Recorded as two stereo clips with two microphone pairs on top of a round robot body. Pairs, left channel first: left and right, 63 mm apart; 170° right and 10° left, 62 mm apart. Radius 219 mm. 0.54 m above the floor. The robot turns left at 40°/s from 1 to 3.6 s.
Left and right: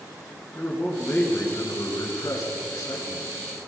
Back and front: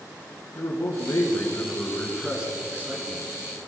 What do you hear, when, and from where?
0.6 s a man speaking: 145° left, 7.5 m; by 3.3 s 55° left, 7.5 m